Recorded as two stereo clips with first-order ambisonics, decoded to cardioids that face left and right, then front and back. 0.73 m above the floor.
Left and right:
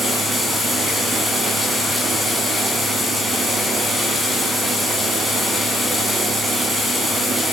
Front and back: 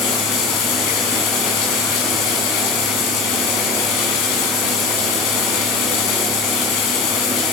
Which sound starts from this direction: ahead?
Running water, at 0.0 s.